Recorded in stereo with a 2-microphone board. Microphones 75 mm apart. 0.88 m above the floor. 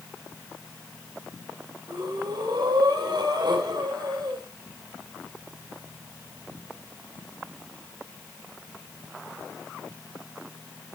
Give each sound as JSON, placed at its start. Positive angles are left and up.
{"t": 1.9, "sound": "breathing", "side_deg": -80, "distance_m": 3.0}